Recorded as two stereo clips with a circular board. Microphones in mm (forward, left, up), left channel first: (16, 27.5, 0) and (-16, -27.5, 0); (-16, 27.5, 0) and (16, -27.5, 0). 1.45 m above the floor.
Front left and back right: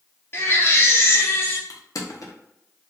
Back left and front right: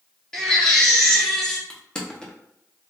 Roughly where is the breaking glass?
No breaking glass in this recording.